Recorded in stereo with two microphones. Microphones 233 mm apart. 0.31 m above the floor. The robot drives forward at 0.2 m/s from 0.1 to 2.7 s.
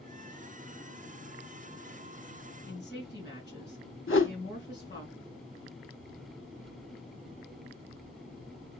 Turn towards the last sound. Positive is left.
turn(degrees=60)  # may be behind; listen again after turning